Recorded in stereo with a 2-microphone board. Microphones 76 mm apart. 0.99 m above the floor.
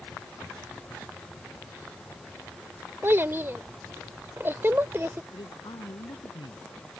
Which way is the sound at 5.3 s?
75° left (ahead or behind).